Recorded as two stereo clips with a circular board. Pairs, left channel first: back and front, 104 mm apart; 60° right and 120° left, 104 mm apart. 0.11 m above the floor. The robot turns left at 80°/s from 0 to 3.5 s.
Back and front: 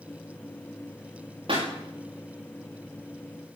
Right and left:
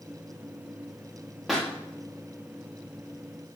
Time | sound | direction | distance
1.5 | a pop | 30° left | 6 m